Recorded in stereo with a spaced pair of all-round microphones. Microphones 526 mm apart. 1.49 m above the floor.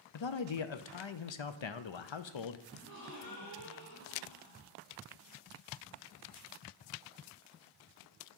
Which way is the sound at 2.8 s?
40° left (ahead or behind).